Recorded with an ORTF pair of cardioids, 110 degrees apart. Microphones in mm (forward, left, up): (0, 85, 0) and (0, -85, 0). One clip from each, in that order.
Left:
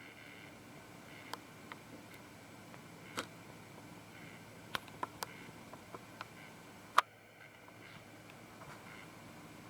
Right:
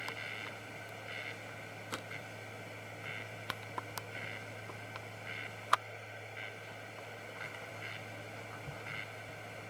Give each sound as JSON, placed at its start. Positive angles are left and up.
{"t": 0.0, "sound": "a machine running", "azimuth_deg": -70}